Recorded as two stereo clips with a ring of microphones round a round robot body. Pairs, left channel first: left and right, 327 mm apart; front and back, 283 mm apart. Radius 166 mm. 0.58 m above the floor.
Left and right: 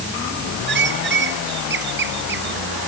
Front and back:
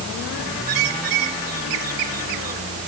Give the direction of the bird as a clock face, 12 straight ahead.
5 o'clock.